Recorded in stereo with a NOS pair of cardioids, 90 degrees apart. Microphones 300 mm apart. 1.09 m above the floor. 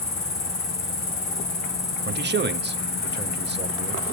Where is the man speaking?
35° right, 1.6 m.